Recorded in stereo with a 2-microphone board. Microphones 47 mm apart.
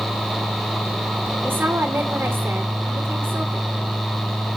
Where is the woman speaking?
45° right (ahead or behind), 2.5 m.